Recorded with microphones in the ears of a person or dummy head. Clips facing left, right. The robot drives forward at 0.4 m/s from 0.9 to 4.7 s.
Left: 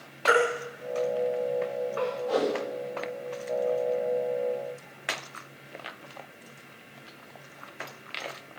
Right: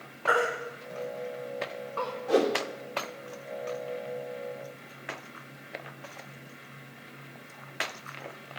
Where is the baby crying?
35° left (ahead or behind), 1.4 m; by 2.1 s 30° left (ahead or behind), 1.8 m.